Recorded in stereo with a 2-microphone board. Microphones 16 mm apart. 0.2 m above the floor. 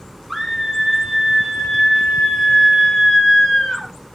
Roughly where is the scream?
Centre.